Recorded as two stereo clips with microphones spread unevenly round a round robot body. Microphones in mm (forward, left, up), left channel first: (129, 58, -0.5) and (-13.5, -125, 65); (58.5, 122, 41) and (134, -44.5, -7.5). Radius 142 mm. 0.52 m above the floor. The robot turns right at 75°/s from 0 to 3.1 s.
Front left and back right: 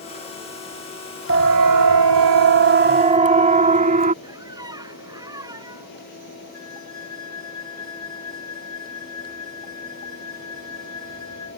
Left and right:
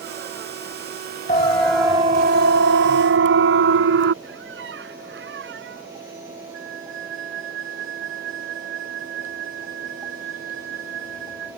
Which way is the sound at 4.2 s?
55° right.